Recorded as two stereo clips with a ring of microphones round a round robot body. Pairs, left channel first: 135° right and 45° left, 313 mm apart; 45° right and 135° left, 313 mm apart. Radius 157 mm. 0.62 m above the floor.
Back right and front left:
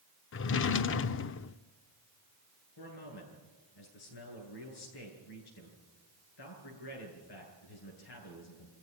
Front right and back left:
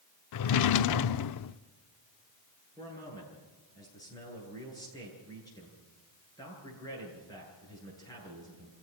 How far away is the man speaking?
About 10 m.